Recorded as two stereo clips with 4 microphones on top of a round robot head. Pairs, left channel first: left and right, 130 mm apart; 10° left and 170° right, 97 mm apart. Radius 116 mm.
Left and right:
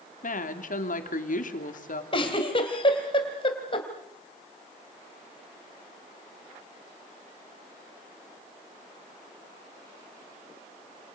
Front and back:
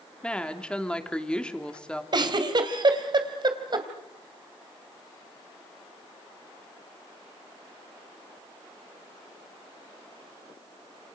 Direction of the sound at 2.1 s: 145° left.